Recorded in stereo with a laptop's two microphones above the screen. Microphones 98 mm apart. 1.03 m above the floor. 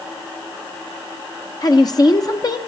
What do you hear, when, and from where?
1.6 s a woman speaking: 40° left (ahead or behind), 1.0 m